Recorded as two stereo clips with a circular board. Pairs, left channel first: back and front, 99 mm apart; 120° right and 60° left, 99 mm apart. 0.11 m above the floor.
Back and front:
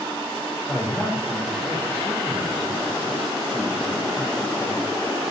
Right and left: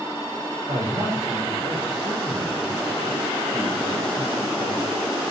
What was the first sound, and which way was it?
A man speaking, 110° left.